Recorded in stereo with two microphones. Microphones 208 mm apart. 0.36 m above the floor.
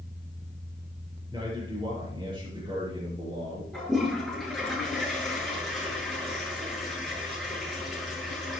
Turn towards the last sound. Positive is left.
turn(degrees=0)  # may be behind; listen again after turning